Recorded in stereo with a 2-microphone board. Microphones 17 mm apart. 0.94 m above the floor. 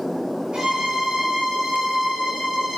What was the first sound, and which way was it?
A violin, 75° right (ahead or behind).